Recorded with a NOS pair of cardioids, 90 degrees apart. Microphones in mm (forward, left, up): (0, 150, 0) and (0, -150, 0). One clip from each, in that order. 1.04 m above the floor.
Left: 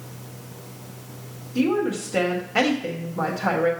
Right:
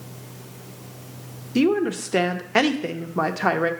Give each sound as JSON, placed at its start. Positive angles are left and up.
{"t": 1.6, "sound": "a woman speaking", "azimuth_deg": -60, "distance_m": 1.0}